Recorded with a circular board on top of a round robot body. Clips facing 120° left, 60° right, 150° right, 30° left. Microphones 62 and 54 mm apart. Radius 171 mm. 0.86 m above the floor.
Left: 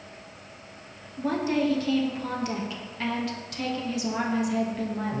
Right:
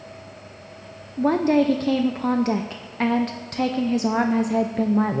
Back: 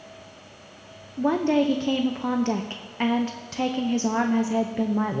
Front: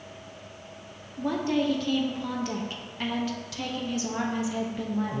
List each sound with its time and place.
1.2 s a woman speaking: 100° right, 0.6 m